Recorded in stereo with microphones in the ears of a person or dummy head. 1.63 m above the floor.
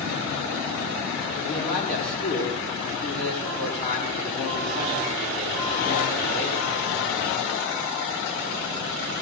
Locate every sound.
1.3 s a man speaking: 45° left (ahead or behind), 5 m